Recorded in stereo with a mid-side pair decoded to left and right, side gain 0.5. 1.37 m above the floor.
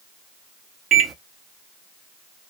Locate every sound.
0.9 s a microwave: 50° right, 0.8 m